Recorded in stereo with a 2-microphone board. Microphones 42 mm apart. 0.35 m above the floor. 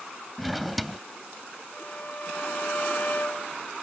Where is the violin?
45° left (ahead or behind).